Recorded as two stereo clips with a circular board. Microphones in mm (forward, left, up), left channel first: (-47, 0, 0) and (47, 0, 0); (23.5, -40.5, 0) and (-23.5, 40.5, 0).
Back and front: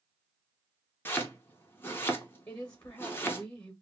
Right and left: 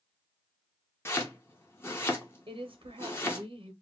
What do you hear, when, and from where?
1.1 s chopping: 120° right, 0.6 m
2.5 s a woman speaking: 120° left, 0.5 m